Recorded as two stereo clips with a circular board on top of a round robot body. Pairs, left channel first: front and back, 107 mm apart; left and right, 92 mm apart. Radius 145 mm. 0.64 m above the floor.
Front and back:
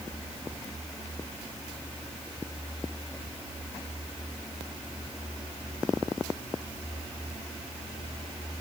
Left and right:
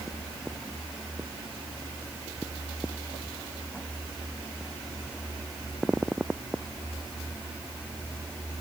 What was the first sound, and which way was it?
Only background noise.